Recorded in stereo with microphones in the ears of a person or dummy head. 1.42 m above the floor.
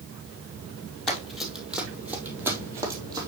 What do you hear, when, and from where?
1.1 s running footsteps: centre (ahead or behind), 3 m; by 3.3 s 25° right (ahead or behind), 3 m